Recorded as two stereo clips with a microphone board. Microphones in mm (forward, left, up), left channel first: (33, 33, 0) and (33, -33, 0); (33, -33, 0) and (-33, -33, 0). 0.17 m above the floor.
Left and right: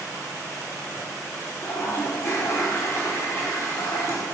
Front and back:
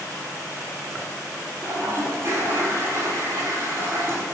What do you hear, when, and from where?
1.6 s a toilet flushing: 135° left, 0.8 m